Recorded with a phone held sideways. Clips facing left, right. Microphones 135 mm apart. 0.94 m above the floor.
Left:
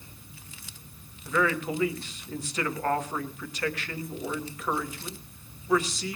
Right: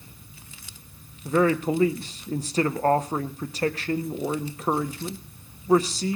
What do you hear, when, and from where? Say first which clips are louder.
1.2 s a man speaking: right 6 dB; 35° right (ahead or behind), 1.4 m